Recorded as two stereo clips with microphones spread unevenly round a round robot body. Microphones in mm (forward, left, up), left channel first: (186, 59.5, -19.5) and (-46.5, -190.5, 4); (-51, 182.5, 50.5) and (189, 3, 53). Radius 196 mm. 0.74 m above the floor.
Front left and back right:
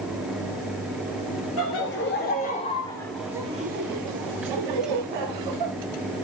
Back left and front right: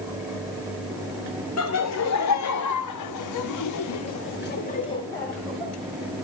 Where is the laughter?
105° left, 2 m; by 5.7 s 125° right, 1.6 m.